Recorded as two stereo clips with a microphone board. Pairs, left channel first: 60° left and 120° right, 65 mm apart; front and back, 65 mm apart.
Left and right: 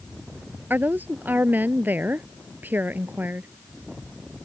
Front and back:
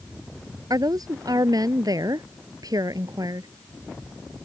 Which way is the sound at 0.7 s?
Straight behind.